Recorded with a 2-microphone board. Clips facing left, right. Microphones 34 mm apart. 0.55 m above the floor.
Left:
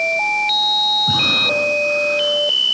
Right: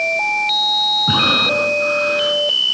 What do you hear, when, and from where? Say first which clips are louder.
1.1 s breathing: right 1 dB; 40° right (ahead or behind), 4 m